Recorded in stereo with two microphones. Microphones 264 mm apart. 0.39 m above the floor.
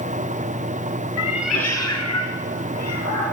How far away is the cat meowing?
About 0.8 m.